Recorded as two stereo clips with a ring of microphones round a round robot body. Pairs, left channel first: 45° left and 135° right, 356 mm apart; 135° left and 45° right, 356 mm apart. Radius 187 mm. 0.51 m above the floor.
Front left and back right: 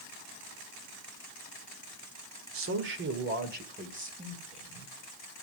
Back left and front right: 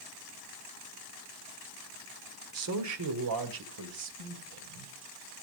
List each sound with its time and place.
2.5 s a man speaking: 90° right, 1.6 m; by 4.9 s 60° right, 3.5 m